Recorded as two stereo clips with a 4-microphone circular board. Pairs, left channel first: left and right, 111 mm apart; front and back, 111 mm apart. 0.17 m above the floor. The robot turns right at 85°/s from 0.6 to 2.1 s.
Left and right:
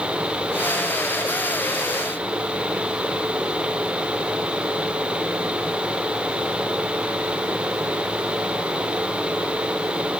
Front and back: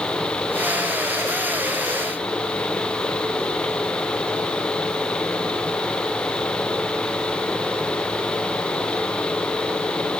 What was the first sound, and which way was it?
Only background noise.